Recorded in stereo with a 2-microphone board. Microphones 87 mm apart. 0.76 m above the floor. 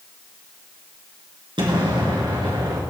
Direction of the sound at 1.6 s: 70° right (ahead or behind).